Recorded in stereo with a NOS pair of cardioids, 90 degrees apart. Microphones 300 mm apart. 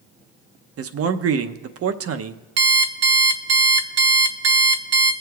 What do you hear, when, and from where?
0.8 s a man speaking: 50° right, 0.7 m
2.6 s an alarm clock: 55° right, 0.9 m